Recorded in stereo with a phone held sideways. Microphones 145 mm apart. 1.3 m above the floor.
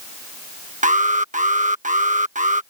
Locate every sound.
0.8 s an alarm: 60° right (ahead or behind)